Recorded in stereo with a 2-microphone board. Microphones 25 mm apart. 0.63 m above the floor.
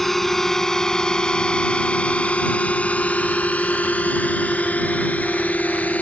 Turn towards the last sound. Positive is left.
turn(degrees=85)